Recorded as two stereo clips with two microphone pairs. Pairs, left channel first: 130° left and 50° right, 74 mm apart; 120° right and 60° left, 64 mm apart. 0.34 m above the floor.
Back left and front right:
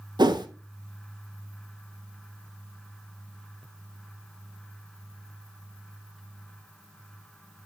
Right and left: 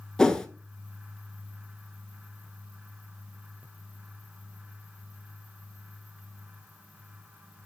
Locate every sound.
0.2 s a whoosh: 40° right, 0.9 m